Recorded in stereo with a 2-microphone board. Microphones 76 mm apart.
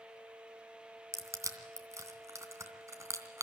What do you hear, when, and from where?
1.1 s crushing: 40° right (ahead or behind), 2.5 m